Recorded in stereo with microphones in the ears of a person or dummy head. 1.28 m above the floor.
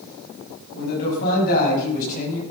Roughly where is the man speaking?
Left.